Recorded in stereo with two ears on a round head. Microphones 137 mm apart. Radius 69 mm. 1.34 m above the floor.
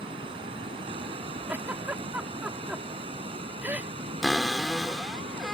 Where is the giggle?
10° right (ahead or behind).